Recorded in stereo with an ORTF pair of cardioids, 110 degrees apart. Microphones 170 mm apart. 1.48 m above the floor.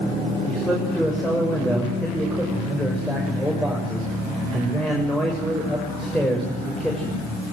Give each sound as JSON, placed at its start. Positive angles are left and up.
{"t": 0.5, "sound": "a man speaking", "azimuth_deg": 0, "distance_m": 7.0}